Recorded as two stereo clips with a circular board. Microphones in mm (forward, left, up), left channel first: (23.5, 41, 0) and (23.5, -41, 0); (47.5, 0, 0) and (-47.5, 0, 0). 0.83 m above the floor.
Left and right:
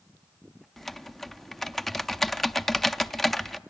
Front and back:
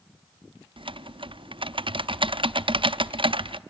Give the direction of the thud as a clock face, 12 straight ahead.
I don't hear a thud.